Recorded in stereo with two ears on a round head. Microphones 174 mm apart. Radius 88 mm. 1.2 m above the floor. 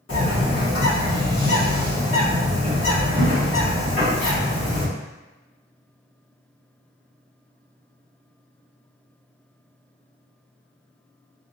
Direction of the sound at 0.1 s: 75° left (ahead or behind).